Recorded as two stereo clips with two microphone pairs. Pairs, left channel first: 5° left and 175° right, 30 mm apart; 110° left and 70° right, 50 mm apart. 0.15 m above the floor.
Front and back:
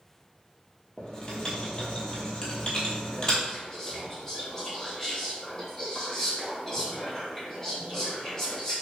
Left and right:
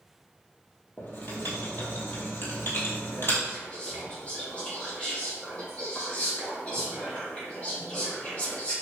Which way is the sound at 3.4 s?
65° left.